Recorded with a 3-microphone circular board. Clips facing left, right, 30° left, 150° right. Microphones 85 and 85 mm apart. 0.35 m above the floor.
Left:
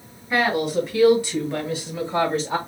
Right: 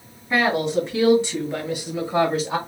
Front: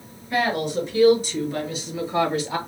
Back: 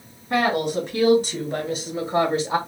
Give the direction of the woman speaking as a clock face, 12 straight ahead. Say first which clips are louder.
Right 1 dB, back 2 dB; 5 o'clock.